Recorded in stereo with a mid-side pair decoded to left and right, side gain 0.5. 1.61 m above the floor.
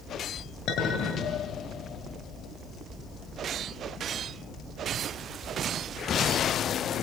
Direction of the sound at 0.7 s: 65° left.